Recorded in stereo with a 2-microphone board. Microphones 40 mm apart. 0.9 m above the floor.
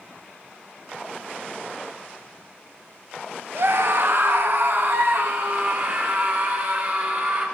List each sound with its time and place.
3.5 s a scream: 65° right (ahead or behind), 1.3 m; by 7.5 s 40° right (ahead or behind), 3.5 m